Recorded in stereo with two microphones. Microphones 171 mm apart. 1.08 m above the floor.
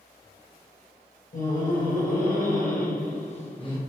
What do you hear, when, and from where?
1.3 s laughter: 50° left (ahead or behind), 1.4 m; by 3.8 s 25° left (ahead or behind), 0.7 m